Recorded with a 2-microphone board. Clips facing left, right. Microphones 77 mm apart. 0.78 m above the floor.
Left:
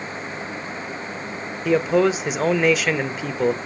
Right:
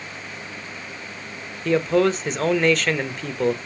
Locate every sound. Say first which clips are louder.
1.6 s a man speaking: left 1 dB; 5° left (ahead or behind), 0.6 m